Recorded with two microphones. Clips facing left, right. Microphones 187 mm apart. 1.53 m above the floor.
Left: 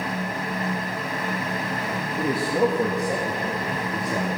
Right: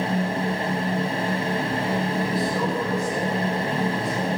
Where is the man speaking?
40° left (ahead or behind), 2 m; by 4.4 s 85° left, 3 m.